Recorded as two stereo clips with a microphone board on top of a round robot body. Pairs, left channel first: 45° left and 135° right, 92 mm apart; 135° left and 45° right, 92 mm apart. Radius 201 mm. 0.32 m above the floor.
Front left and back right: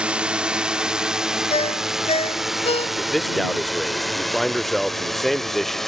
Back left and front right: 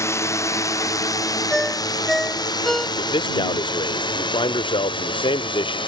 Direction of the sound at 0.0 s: 155° left.